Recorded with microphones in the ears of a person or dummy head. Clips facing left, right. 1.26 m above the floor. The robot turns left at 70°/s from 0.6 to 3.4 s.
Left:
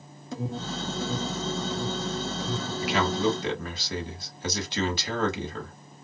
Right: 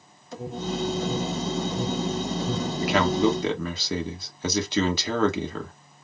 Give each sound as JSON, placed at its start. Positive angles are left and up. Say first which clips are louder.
{"t": 0.3, "sound": "an alarm", "louder": "right 3 dB", "side_deg": 80, "distance_m": 2.5}
{"t": 2.8, "sound": "a man speaking", "louder": "right 4 dB", "azimuth_deg": -45, "distance_m": 1.2}